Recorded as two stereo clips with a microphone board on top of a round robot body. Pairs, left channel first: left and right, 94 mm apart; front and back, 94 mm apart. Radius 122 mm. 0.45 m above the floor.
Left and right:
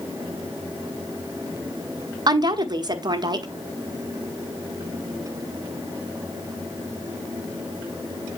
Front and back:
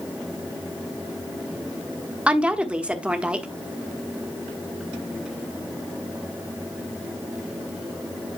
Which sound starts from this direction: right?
A woman speaking, at 2.3 s.